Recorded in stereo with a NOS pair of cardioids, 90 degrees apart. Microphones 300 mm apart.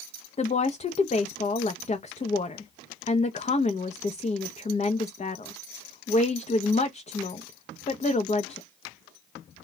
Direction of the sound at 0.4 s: 25° left.